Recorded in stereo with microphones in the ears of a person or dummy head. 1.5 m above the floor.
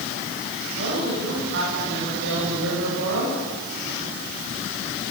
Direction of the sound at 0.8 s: 60° right (ahead or behind).